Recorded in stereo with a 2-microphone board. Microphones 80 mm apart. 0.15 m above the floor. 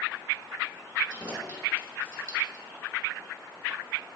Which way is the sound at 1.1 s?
40° right (ahead or behind).